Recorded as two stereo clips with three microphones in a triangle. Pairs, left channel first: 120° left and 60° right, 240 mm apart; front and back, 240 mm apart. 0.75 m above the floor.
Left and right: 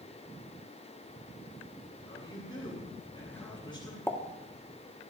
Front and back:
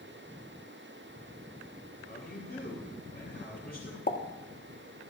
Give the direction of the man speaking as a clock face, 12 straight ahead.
10 o'clock.